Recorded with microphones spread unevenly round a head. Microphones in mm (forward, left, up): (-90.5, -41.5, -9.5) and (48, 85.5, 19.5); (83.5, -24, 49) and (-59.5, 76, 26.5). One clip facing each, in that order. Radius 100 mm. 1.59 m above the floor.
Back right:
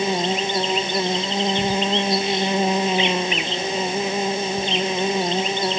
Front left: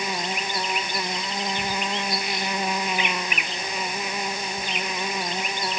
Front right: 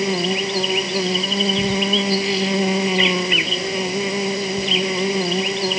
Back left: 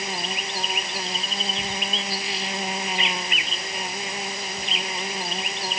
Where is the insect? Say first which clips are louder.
Back right 8 dB, front right 12 dB; 70° right.